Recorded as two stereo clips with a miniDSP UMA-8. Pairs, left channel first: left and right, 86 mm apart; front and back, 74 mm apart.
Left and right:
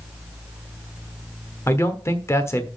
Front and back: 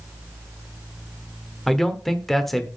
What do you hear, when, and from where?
1.7 s a man speaking: 85° left, 1.1 m